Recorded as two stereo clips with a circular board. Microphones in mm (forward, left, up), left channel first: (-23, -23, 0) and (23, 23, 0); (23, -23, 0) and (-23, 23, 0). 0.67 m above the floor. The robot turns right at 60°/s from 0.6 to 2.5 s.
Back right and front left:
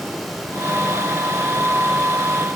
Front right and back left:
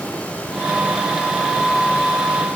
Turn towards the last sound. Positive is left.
No sound to turn to.